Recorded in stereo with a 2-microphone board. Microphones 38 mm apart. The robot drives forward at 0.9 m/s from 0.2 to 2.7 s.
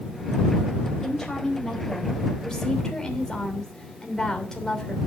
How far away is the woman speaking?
About 4.5 m.